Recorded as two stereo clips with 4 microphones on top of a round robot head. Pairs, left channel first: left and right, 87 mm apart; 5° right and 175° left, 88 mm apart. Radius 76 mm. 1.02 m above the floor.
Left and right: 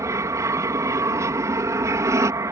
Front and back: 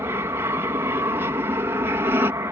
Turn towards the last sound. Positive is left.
turn(degrees=-130)